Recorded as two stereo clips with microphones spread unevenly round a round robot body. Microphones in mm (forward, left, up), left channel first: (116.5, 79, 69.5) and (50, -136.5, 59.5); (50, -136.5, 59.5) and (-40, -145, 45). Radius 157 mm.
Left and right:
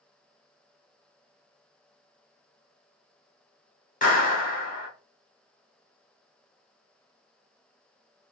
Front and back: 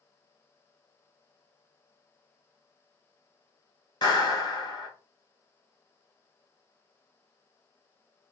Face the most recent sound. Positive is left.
turn(degrees=35)